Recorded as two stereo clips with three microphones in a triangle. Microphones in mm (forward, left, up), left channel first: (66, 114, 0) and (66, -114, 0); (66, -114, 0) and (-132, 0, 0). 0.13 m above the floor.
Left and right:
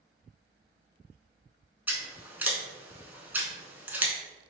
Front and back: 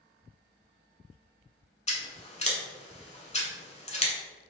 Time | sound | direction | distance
1.9 | scissors | 15° right | 0.6 m